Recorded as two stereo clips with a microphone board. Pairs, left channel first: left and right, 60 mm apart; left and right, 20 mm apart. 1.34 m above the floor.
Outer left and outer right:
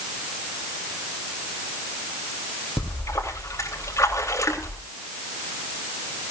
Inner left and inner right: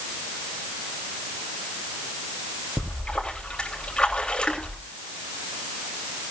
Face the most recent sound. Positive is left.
turn(degrees=55)  # may be behind; listen again after turning